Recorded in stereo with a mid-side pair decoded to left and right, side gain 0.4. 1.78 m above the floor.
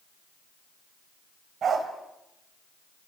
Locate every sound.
1.6 s a dog barking: 60° right, 4 m